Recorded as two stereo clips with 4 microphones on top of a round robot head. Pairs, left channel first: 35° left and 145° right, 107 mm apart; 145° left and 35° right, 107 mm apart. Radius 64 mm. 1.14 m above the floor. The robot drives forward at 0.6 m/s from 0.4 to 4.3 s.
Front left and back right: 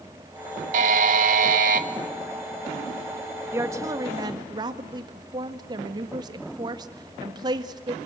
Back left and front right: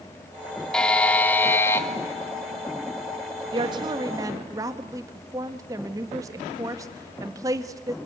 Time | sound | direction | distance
0.7 | a buzzer | 130° right | 1.5 m
3.5 | a woman speaking | 80° right | 1.8 m